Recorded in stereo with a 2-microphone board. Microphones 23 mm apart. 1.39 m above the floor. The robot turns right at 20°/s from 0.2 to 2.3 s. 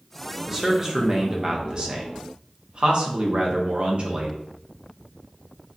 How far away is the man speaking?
About 0.6 m.